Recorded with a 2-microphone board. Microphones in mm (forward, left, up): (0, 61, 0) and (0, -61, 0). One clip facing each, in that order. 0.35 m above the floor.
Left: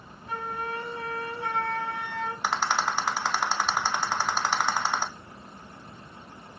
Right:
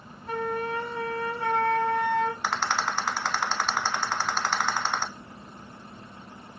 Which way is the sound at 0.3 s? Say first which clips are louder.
Right 5 dB; 75° right (ahead or behind).